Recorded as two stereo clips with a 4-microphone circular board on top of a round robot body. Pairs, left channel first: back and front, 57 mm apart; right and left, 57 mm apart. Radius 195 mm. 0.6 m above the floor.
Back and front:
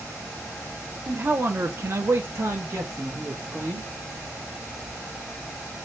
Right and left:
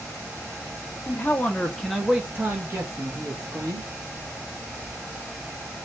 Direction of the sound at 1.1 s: 50° right.